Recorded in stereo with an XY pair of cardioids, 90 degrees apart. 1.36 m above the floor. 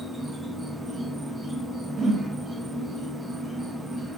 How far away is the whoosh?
About 0.5 m.